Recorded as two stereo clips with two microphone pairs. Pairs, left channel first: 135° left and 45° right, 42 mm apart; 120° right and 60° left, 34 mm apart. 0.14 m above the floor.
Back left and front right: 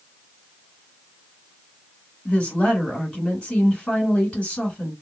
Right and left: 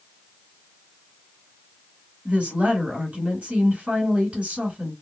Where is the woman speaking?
90° left, 1.7 m.